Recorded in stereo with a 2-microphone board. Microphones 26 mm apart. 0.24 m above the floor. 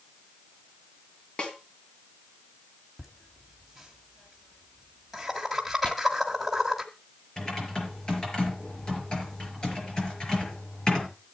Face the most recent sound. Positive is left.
turn(degrees=30)  # may be behind; listen again after turning